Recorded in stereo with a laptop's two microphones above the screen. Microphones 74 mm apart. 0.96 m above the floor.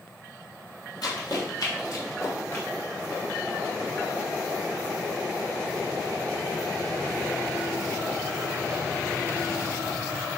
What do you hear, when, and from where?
1.0 s running footsteps: 60° left (ahead or behind), 1.7 m; by 2.6 s 30° left (ahead or behind), 1.1 m